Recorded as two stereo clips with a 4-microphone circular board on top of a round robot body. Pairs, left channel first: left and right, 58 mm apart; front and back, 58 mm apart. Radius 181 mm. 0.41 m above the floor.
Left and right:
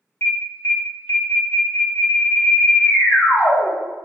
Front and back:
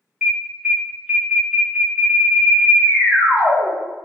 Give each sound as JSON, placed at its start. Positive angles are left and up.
{"t": 0.2, "sound": "an alarm", "azimuth_deg": 100, "distance_m": 1.9}